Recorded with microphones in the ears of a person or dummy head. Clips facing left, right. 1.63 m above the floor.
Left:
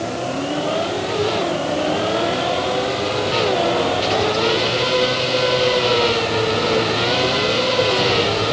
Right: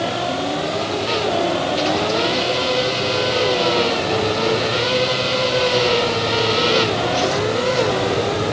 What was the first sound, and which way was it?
Only background noise.